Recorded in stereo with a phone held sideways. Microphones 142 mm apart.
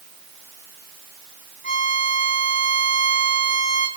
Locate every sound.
1.6 s a violin: 65° left (ahead or behind), 8 m